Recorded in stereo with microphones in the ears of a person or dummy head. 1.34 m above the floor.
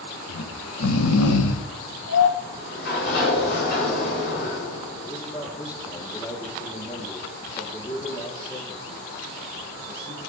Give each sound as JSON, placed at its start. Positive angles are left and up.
{"t": 0.3, "sound": "snoring", "side_deg": 80, "distance_m": 0.9}
{"t": 2.4, "sound": "a sliding door", "side_deg": 55, "distance_m": 4.5}
{"t": 5.0, "sound": "a man speaking", "side_deg": 25, "distance_m": 3.5}